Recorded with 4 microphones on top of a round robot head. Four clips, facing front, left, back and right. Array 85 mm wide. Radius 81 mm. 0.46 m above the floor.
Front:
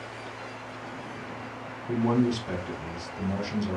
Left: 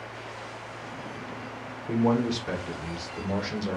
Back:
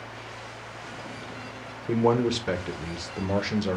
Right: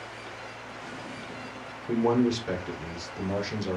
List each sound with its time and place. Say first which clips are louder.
1.9 s a man speaking: right 1 dB, back 2 dB; 175° right, 1.3 m